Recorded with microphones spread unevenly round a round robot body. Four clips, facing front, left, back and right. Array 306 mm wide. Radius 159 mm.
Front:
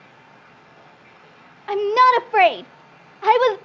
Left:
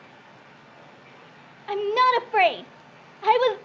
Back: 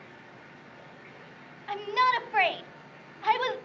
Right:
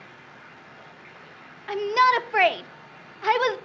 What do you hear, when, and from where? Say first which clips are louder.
0.0 s running water: right 2 dB, front 1 dB; 155° right, 6.5 m
1.7 s a shout: even, front 11 dB; 10° left, 0.9 m